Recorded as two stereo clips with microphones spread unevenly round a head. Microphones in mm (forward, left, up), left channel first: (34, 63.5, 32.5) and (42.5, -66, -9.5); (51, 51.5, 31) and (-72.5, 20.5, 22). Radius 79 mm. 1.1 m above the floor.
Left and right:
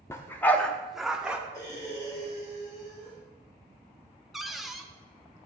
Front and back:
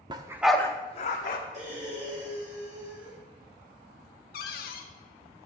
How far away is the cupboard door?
About 0.8 m.